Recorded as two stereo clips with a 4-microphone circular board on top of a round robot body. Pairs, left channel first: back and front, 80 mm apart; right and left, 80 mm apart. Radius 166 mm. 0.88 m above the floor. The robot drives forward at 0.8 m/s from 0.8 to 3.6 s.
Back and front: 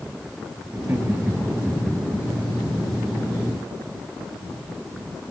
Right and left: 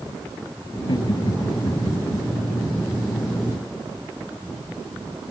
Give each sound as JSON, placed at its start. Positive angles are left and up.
{"t": 0.7, "sound": "laughter", "azimuth_deg": -60}